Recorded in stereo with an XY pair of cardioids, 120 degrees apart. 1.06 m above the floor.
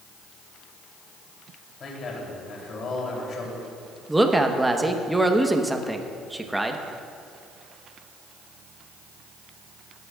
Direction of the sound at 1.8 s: 45° left.